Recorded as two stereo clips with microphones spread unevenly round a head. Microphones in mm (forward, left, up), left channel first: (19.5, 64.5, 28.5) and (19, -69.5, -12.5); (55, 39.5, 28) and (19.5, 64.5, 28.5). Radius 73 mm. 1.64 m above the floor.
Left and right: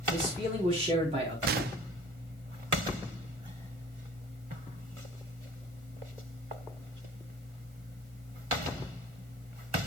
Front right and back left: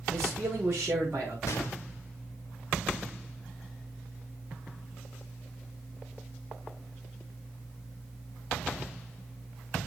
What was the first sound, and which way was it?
A man speaking, 145° right.